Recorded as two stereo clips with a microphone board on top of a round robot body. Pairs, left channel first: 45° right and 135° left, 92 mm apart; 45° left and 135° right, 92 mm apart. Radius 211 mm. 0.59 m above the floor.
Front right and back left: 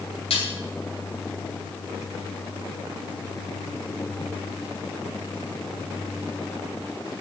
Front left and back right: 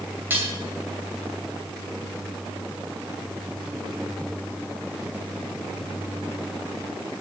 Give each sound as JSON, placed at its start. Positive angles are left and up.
{"t": 0.3, "sound": "dishes clattering", "azimuth_deg": -65, "distance_m": 2.5}